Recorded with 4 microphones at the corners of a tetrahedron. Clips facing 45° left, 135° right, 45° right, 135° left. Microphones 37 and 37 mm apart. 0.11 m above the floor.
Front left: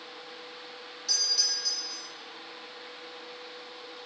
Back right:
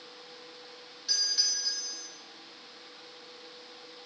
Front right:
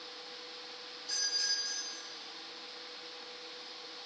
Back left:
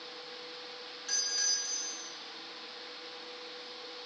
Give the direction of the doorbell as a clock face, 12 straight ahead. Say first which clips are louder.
Front left 1 dB, even; 7 o'clock.